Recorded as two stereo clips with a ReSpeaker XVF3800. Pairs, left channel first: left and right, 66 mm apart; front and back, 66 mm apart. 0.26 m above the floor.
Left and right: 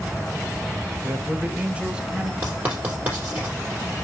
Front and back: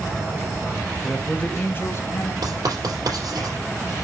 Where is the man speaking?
80° right, 1.3 m; by 2.3 s 15° right, 1.8 m.